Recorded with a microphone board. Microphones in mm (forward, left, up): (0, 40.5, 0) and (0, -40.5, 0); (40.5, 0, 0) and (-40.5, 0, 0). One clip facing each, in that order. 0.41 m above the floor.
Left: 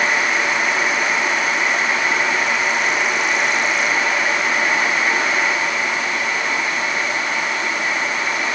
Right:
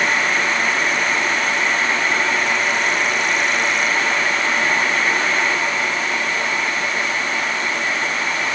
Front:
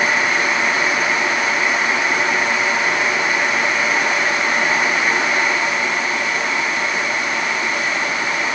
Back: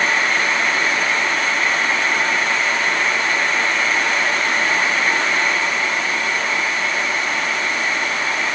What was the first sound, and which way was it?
Only background noise.